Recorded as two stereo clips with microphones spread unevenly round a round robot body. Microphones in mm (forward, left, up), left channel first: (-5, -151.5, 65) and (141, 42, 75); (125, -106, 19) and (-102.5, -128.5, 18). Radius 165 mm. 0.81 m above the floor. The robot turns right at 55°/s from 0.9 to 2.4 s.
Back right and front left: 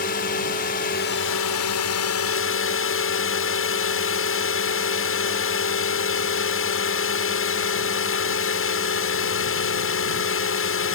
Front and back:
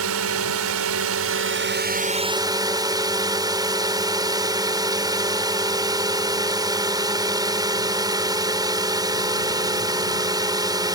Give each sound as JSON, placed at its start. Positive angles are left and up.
{"t": 0.0, "sound": "a drone", "azimuth_deg": 175}